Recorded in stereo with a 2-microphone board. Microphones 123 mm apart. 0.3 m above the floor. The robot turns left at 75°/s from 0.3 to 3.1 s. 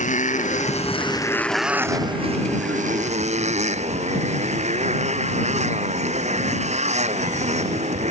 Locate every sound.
0.0 s a motorcycle: 95° left; by 8.1 s 115° right